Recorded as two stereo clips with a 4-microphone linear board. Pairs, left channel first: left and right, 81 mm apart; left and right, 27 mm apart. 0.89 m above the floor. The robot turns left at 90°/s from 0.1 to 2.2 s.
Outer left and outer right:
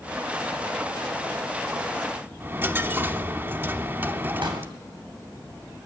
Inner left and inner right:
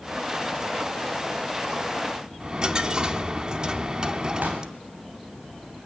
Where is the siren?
I don't hear a siren.